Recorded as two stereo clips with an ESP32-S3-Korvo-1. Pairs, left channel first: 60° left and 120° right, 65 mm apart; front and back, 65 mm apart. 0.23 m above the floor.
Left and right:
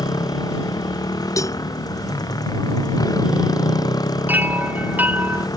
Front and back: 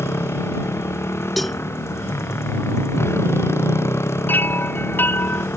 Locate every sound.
0.0 s a motorcycle: 50° left
1.4 s a cowbell: 90° left
4.3 s a chime: 60° right